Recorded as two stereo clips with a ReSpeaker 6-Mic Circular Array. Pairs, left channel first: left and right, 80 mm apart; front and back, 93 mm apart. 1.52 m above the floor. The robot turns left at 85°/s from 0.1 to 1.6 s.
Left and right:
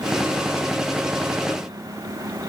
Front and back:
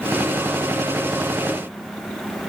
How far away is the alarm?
No alarm in this recording.